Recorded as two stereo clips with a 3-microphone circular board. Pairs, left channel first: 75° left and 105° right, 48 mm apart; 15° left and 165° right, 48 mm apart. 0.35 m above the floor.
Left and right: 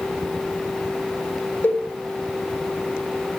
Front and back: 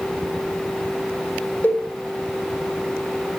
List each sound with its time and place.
1.6 s a cowbell: 45° left, 3 m